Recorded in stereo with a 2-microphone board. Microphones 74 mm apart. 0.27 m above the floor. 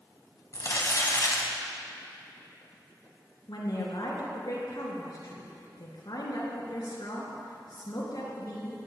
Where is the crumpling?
45° left (ahead or behind), 1.9 m.